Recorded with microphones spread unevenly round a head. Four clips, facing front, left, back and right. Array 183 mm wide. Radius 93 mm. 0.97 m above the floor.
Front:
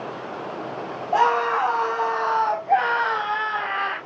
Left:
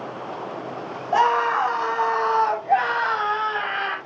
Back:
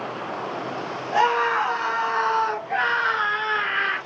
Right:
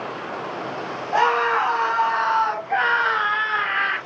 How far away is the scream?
About 7.5 m.